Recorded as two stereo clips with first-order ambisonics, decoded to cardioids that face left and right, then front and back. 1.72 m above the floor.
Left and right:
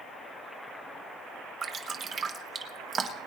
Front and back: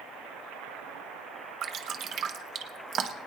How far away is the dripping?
About 1.1 m.